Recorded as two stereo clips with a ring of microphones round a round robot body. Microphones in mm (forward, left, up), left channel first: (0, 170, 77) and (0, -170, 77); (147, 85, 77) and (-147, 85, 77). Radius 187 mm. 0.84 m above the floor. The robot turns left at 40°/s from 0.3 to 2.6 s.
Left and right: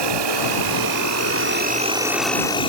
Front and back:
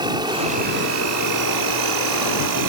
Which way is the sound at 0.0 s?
100° right.